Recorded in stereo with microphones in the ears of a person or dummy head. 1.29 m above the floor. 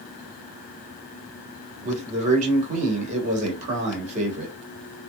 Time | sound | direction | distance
1.8 | a man speaking | 45° right (ahead or behind) | 1.1 m